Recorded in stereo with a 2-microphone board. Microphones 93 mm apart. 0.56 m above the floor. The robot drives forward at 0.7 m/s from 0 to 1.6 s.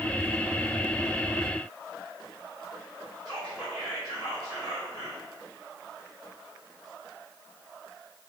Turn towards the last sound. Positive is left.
turn(degrees=-5)  # may be behind; listen again after turning